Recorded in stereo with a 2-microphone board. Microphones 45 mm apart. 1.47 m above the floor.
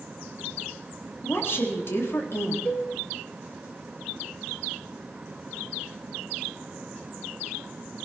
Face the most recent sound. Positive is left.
turn(degrees=35)  # may be behind; listen again after turning